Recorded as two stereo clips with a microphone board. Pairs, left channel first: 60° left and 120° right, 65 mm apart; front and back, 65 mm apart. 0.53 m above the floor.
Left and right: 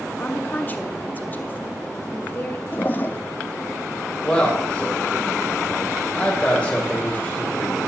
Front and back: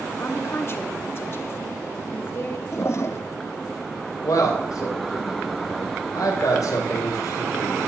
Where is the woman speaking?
15° left, 1.0 m.